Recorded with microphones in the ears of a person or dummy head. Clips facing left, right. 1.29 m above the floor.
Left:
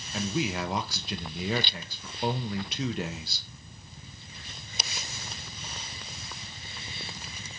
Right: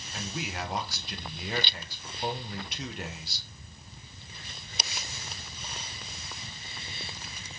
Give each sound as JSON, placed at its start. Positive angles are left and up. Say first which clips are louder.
{"t": 0.1, "sound": "a man speaking", "louder": "left 7 dB", "side_deg": 60, "distance_m": 0.6}